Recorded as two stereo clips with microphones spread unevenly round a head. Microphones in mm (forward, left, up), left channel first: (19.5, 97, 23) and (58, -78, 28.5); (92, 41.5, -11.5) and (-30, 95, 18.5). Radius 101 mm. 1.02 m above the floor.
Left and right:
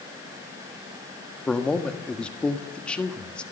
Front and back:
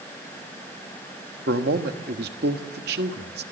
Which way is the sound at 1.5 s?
170° right.